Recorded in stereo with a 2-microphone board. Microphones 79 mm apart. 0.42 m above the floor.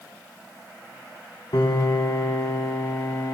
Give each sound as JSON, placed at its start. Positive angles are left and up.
{"t": 1.5, "sound": "a piano", "side_deg": 75, "distance_m": 1.5}